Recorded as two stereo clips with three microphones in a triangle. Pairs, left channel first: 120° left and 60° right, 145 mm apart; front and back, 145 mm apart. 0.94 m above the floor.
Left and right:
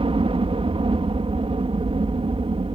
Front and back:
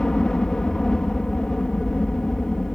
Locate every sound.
0.0 s a helicopter: 85° right